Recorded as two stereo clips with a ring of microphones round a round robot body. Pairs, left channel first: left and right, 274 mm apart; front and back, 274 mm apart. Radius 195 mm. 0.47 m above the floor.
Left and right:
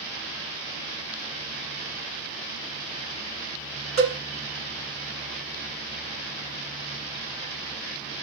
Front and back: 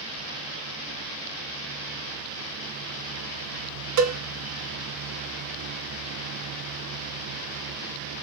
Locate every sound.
4.0 s a cowbell: 160° right, 0.8 m